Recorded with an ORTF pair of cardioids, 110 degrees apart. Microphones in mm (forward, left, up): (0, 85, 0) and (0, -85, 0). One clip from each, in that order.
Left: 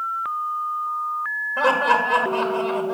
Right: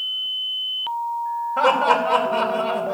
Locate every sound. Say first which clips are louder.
1.6 s laughter: right 1 dB; 15° right, 2.5 m